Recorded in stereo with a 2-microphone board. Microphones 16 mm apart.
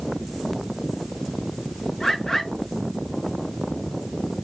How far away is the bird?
About 2.5 m.